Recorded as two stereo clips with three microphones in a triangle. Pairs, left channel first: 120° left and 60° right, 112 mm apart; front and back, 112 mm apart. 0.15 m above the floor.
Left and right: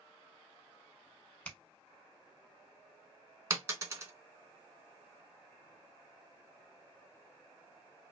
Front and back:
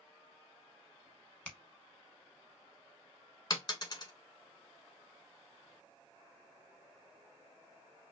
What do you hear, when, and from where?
1.4 s a finger snap: 60° left, 0.8 m
3.5 s a dropped coin: 15° right, 0.7 m